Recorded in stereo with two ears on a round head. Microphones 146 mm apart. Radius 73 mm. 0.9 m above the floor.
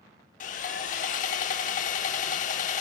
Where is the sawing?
50° left (ahead or behind), 1.0 m.